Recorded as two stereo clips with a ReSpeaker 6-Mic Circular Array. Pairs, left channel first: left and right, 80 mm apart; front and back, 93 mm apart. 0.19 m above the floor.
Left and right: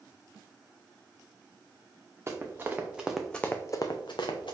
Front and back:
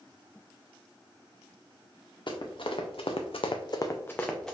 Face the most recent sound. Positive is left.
turn(degrees=85)